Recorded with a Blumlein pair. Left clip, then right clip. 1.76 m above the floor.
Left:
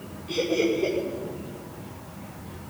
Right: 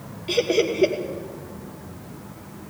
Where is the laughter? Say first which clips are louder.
Right 3 dB; 60° right, 2.5 m.